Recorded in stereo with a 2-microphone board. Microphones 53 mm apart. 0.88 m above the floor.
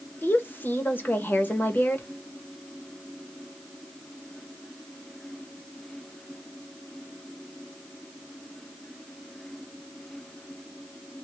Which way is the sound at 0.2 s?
40° left (ahead or behind).